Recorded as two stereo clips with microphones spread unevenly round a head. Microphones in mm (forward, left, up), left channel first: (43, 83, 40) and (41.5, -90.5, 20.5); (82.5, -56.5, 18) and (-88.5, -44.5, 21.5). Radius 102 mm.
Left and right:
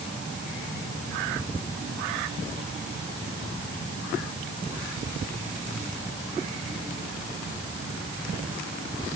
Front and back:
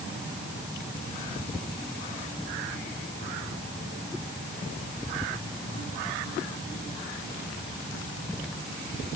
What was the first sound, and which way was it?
Only background noise.